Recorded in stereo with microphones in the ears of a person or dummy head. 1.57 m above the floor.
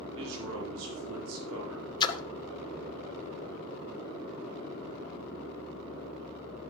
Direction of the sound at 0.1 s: 75° right (ahead or behind).